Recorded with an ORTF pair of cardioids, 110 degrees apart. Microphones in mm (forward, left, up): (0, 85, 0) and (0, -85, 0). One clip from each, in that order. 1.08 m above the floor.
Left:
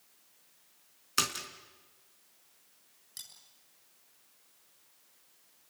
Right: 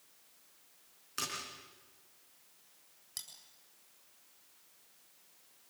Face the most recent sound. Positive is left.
turn(degrees=-25)